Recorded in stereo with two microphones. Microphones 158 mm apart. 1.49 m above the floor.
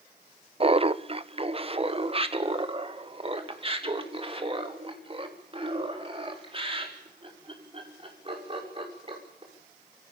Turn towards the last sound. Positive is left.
turn(degrees=-35)  # may be behind; listen again after turning